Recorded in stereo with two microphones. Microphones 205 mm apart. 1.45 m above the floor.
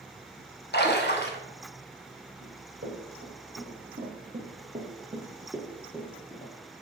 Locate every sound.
0.7 s a splash: 55° left (ahead or behind), 0.8 m
2.4 s running footsteps: 60° right (ahead or behind), 3.5 m; by 6.5 s 20° left (ahead or behind), 1.6 m